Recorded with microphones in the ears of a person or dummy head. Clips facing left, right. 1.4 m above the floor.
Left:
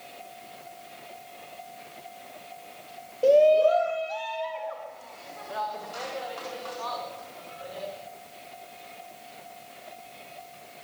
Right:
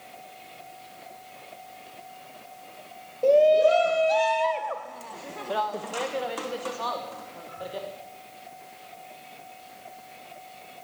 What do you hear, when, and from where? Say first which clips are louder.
3.2 s a shout: even; 5° left (ahead or behind), 0.8 m; by 7.9 s 55° right (ahead or behind), 4.5 m